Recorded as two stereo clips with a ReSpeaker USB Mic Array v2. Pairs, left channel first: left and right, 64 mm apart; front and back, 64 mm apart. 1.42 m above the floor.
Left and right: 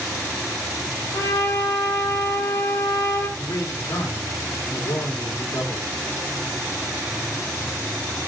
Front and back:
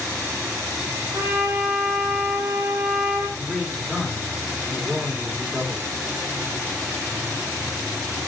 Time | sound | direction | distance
1.1 | a trumpet | 125° left | 3 m
3.4 | a man speaking | 95° left | 2.5 m